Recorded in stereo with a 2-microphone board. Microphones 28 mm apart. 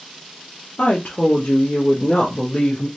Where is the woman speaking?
65° left (ahead or behind), 0.7 m; by 2.9 s 35° left (ahead or behind), 1.3 m.